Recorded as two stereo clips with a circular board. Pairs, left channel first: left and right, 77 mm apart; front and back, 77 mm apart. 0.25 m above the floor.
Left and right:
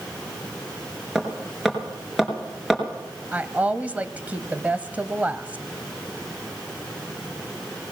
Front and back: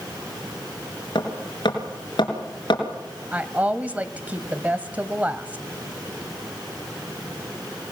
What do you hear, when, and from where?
1.1 s hammering: 5° right, 4 m
3.3 s a woman speaking: 135° right, 1.0 m